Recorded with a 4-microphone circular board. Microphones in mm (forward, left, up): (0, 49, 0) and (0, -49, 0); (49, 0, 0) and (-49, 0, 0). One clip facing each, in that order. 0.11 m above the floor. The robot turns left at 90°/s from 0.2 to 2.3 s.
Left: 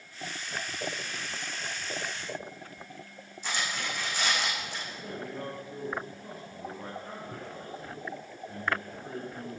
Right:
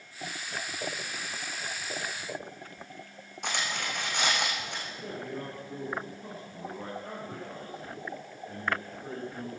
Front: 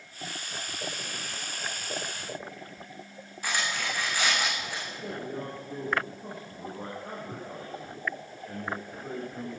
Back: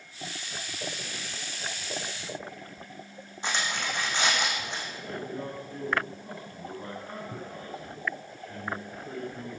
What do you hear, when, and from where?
3.4 s cutlery clinking: 115° right, 4.5 m
5.0 s a man speaking: 40° right, 7 m